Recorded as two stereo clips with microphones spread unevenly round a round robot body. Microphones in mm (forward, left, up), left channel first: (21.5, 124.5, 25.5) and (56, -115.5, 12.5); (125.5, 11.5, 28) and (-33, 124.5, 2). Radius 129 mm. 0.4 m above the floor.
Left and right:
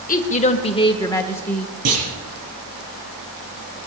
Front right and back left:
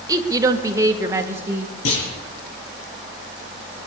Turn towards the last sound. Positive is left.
turn(degrees=-60)